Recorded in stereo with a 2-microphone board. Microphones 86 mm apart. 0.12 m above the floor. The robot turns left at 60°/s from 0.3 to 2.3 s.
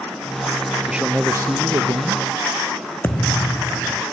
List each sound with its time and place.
0.9 s a man speaking: 5° right; by 2.2 s 90° right
3.0 s a thud: 25° left (ahead or behind)